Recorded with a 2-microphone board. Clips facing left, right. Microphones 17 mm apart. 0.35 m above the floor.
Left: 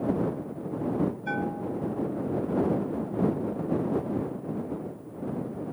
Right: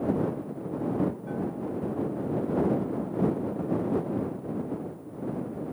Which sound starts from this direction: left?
A bell, at 1.3 s.